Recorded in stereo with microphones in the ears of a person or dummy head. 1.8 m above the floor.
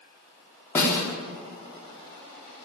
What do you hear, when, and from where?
0.8 s a snare drum: 15° left (ahead or behind), 4 m